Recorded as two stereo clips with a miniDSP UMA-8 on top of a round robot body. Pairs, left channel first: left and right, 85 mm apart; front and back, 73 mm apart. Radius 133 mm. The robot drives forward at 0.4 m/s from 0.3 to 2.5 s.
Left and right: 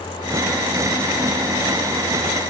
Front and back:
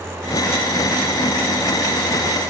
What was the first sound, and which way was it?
Only background noise.